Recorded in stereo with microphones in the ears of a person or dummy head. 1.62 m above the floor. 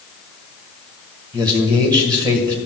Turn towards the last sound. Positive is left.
turn(degrees=-20)  # may be behind; listen again after turning